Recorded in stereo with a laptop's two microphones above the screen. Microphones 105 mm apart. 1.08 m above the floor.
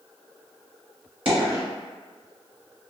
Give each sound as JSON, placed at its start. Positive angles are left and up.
{"t": 1.2, "sound": "a dropped coin", "side_deg": -55, "distance_m": 1.8}